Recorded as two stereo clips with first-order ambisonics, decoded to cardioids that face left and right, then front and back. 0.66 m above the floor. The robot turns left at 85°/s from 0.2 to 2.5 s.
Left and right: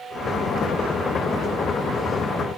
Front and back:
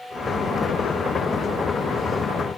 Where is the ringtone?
I don't hear a ringtone.